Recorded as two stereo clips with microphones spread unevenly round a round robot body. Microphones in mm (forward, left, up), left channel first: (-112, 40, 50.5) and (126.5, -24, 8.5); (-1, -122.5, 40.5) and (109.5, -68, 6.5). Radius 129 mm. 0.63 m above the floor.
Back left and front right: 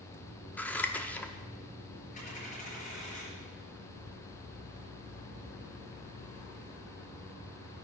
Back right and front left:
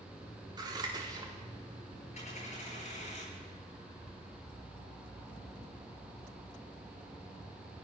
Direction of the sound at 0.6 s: 75° left.